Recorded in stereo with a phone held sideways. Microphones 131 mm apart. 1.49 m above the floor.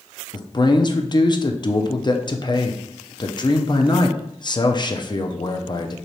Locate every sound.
0.3 s a man speaking: 35° left (ahead or behind), 0.6 m